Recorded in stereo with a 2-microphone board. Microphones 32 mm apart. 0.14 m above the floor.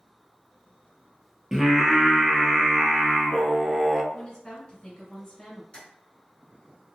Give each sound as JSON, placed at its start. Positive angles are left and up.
{"t": 1.5, "sound": "singing", "side_deg": -10, "distance_m": 0.5}
{"t": 4.1, "sound": "a woman speaking", "side_deg": 20, "distance_m": 1.4}
{"t": 5.7, "sound": "tapping", "side_deg": 25, "distance_m": 1.8}